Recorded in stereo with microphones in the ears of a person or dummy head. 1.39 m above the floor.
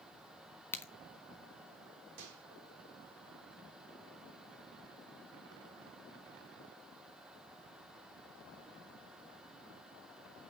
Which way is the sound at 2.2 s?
60° right (ahead or behind).